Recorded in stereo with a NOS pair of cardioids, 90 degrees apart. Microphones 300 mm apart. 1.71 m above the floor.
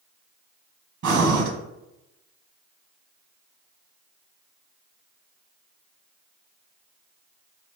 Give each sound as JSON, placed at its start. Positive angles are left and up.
{"t": 1.0, "sound": "breathing", "azimuth_deg": -65, "distance_m": 1.4}